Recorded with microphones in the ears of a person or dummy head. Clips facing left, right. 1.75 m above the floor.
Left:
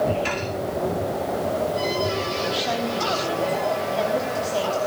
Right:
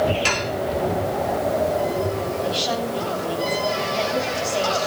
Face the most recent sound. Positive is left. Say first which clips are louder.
# right 1 dB
turn(degrees=10)  # may be behind; listen again after turning